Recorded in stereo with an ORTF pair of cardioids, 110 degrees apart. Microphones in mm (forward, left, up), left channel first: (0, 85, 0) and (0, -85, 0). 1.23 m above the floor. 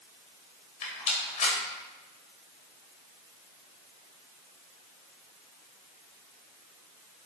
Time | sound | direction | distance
0.8 | a rattle | 45° left | 3.5 m